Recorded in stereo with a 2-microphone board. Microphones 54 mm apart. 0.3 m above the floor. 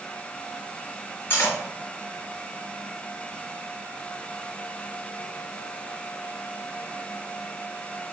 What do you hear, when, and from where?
1.3 s cutlery clinking: 50° left (ahead or behind), 2.0 m